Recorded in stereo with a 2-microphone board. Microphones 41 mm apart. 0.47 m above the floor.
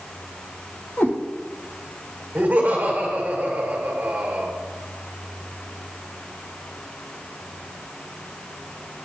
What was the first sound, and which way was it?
A cat meowing, 65° left (ahead or behind).